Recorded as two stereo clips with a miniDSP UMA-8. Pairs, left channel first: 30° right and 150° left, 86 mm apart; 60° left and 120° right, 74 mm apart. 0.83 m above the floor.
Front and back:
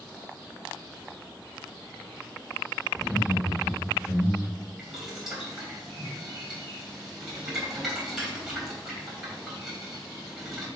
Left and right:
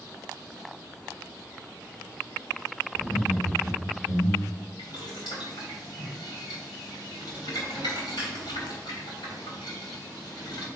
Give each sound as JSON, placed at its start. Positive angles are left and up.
{"t": 2.9, "sound": "laughter", "azimuth_deg": 60, "distance_m": 3.5}
{"t": 4.8, "sound": "boiling", "azimuth_deg": 65, "distance_m": 2.5}